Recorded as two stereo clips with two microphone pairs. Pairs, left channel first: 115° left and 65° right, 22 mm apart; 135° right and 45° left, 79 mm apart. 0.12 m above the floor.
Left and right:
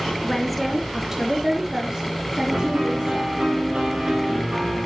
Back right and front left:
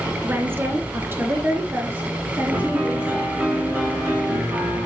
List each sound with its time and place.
0.2 s a woman speaking: 65° left, 1.2 m; by 3.3 s 30° right, 3.5 m
2.5 s a piano: 25° right, 5.5 m